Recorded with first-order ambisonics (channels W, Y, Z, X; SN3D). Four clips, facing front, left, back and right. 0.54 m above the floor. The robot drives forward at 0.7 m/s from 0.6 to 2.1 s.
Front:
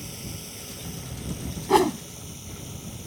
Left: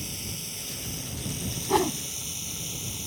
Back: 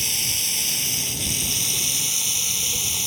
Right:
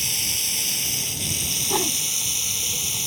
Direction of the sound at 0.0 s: 140° right.